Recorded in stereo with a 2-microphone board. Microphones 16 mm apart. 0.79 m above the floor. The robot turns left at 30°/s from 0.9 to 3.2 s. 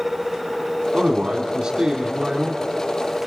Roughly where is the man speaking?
Right.